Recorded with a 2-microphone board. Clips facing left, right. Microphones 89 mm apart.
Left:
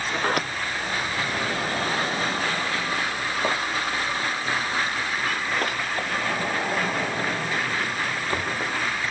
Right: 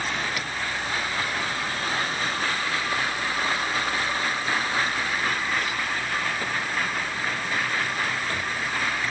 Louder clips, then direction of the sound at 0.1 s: Left 4 dB; 50° left (ahead or behind).